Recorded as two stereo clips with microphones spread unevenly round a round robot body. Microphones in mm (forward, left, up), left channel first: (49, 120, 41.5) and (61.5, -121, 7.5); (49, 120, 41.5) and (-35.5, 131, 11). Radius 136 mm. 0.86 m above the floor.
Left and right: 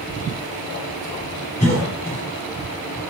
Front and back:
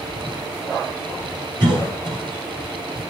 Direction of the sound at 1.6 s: 160° left.